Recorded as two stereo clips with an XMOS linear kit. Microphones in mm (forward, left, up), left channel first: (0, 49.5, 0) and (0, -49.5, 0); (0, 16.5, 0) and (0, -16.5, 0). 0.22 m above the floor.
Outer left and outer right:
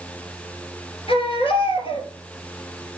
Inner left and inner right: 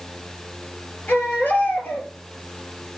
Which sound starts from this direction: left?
A baby crying, at 1.1 s.